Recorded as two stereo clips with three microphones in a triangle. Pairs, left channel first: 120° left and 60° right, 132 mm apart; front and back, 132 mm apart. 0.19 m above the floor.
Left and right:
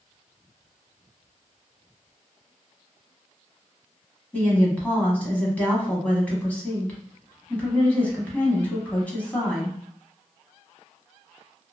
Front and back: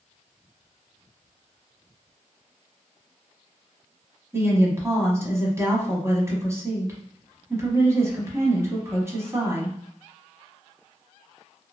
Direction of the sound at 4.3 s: 175° left.